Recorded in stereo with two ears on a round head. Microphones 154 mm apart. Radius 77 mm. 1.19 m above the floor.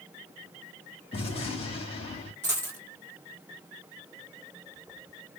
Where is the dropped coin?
15° right (ahead or behind), 1.9 m.